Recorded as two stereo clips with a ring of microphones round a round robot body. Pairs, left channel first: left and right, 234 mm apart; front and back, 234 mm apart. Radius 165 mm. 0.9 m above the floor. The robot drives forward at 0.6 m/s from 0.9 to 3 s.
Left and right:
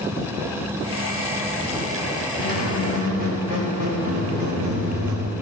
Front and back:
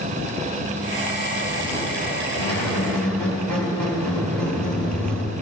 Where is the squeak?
125° right, 1.6 m; by 5.3 s 135° right, 1.8 m.